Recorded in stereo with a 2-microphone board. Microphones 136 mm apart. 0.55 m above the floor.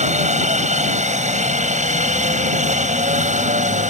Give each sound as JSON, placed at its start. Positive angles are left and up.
{"t": 0.0, "sound": "a helicopter", "side_deg": -60}